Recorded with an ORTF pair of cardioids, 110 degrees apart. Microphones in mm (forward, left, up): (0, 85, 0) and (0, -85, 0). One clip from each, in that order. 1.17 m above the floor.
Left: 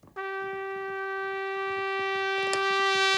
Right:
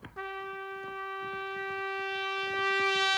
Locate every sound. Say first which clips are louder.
0.2 s a trumpet: left 5 dB; 25° left, 0.6 m